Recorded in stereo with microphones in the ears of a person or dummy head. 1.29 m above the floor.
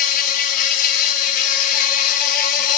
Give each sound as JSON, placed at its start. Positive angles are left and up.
{"t": 0.0, "sound": "an insect", "side_deg": 45, "distance_m": 1.5}